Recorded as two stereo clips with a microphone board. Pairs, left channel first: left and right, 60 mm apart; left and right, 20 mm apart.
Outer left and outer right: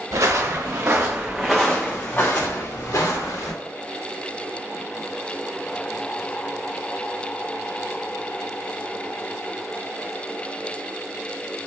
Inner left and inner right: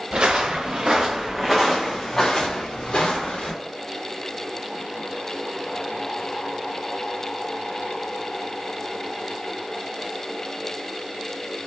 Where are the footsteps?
60° right (ahead or behind), 0.9 m; by 3.5 s 70° left (ahead or behind), 1.2 m.